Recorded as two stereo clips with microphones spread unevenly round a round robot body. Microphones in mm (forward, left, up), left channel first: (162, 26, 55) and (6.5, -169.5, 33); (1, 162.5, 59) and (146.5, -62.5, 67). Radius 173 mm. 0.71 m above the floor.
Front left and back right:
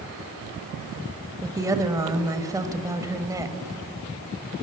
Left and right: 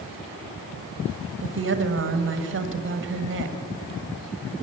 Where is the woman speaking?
65° right, 1.4 m.